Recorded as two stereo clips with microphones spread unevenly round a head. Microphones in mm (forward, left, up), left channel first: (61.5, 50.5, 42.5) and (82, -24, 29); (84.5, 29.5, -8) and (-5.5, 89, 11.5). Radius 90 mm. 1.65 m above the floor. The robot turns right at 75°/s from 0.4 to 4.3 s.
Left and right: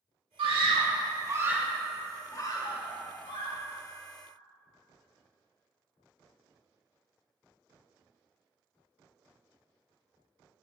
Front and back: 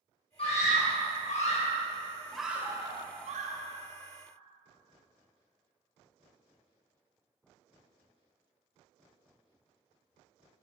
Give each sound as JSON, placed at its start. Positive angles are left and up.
{"t": 0.4, "sound": "a scream", "azimuth_deg": -95, "distance_m": 1.2}